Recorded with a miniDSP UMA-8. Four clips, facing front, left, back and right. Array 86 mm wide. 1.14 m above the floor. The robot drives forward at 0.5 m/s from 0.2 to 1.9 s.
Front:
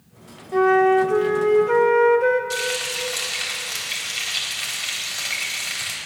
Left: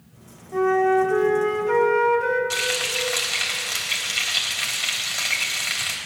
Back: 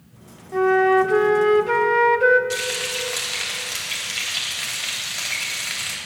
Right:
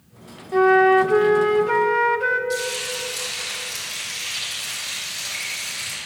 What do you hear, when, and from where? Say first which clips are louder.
0.5 s a flute: right 4 dB, front 1 dB; 70° right, 0.6 m; by 2.4 s 155° right, 0.8 m
2.5 s frying: right 1 dB, front 1 dB; 115° left, 3.5 m